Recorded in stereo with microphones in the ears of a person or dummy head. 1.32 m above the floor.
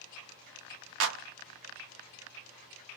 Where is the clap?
70° right (ahead or behind), 0.7 m.